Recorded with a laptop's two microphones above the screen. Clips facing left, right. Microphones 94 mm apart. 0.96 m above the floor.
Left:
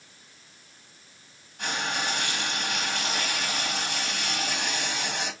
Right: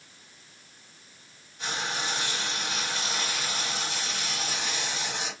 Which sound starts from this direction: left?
Frying, at 1.6 s.